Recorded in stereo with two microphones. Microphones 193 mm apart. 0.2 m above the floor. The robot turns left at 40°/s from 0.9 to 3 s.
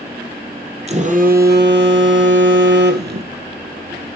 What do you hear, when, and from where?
0.9 s a phone buzzing: 35° right, 1.4 m; by 4.2 s 120° right, 1.4 m